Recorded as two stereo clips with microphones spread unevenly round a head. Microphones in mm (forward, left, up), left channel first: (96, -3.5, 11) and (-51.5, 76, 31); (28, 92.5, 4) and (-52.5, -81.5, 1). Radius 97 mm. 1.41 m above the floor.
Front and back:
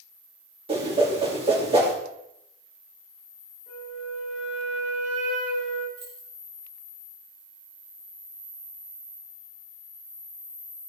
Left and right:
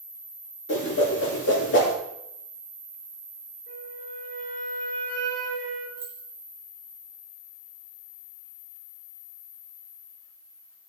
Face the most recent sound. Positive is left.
turn(degrees=160)